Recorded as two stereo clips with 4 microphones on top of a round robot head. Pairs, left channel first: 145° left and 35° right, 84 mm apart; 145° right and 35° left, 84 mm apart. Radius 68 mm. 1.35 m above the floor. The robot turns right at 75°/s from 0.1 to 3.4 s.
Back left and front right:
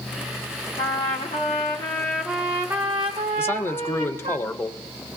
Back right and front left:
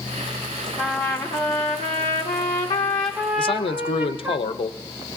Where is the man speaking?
155° right, 0.6 m.